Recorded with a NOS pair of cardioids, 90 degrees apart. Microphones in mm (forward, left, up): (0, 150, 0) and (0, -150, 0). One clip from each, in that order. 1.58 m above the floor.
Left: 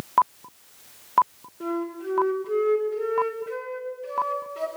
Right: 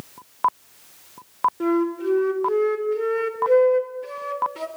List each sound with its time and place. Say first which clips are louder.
1.6 s a flute: right 8 dB; 65° right, 4.5 m